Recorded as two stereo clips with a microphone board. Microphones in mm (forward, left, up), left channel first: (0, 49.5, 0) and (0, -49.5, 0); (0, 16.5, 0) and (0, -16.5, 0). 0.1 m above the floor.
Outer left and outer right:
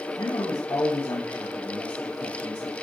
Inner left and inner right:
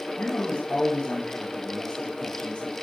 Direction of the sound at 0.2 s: 55° left (ahead or behind).